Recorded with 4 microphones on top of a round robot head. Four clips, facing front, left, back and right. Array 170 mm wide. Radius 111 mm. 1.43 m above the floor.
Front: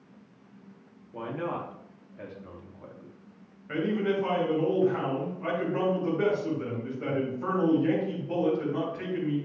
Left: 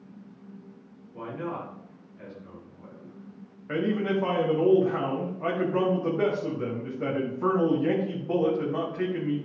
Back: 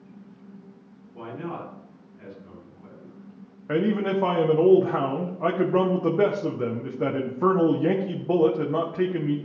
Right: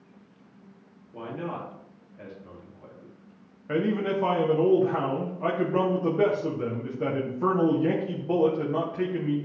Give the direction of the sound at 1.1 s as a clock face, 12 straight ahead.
1 o'clock.